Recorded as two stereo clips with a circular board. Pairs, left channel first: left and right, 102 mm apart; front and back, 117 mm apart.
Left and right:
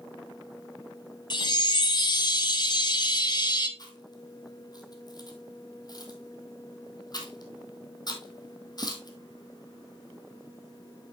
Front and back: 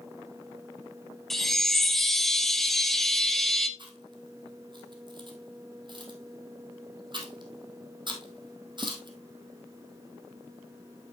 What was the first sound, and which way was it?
A chime, 85° left.